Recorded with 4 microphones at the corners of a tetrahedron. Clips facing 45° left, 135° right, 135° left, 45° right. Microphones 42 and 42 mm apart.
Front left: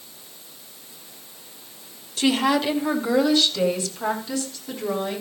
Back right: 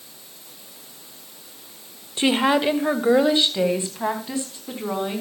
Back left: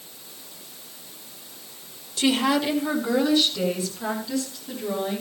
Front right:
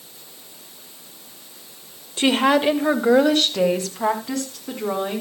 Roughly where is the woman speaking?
Right.